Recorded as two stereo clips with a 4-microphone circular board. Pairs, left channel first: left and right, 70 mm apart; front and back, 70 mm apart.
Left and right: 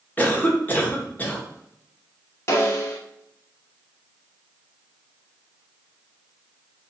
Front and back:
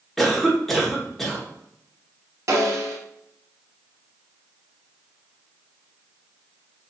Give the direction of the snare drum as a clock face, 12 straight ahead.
7 o'clock.